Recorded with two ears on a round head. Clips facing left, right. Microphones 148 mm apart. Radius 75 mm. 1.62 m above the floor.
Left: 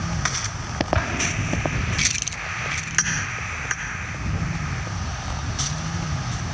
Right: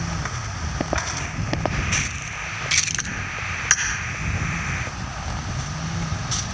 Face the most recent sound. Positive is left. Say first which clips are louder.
# left 3 dB
turn(degrees=50)  # may be behind; listen again after turning